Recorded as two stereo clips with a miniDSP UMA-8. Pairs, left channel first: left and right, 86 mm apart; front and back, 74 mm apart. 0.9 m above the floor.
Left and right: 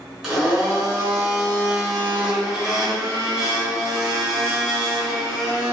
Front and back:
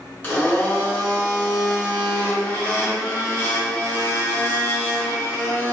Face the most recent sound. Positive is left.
turn(degrees=-10)